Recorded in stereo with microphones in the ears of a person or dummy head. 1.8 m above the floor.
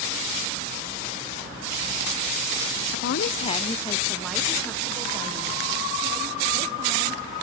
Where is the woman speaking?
65° left (ahead or behind), 0.6 m; by 7.2 s 20° right (ahead or behind), 3 m.